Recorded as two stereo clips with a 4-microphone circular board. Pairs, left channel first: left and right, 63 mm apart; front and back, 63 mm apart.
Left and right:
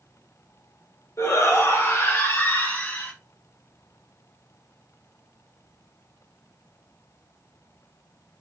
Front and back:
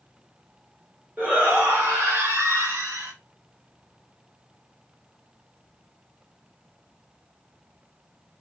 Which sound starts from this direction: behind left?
A shout, at 1.2 s.